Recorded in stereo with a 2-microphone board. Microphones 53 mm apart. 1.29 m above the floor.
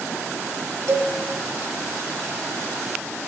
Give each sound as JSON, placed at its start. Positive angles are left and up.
{"t": 0.9, "sound": "a cowbell", "side_deg": -65, "distance_m": 3.5}